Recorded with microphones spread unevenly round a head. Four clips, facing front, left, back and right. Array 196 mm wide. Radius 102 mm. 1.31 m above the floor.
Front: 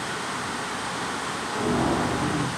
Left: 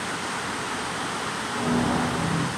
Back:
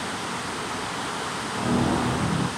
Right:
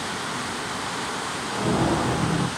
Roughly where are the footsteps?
Ahead right.